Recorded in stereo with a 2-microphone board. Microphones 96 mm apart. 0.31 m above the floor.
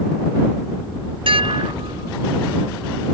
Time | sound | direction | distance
1.3 | dishes clattering | 70° right (ahead or behind) | ?